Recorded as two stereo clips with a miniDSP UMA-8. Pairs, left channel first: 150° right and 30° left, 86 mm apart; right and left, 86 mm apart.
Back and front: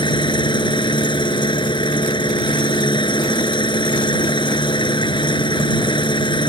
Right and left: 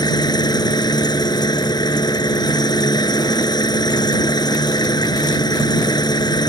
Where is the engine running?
125° right.